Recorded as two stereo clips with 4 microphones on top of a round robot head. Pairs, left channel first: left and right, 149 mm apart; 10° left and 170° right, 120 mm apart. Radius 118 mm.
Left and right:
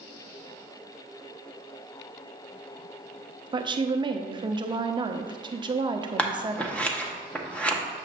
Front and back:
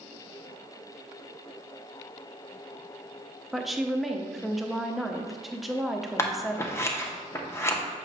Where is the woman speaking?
80° right, 0.7 m.